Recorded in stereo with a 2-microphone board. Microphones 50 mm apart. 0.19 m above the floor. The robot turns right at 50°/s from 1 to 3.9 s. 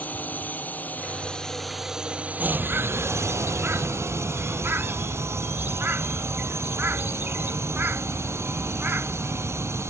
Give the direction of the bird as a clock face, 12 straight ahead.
4 o'clock.